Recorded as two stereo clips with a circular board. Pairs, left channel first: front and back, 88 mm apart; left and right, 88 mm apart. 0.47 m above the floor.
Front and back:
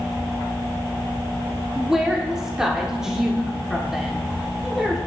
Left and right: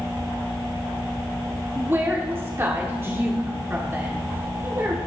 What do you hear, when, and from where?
1.8 s a woman speaking: 105° right, 1.1 m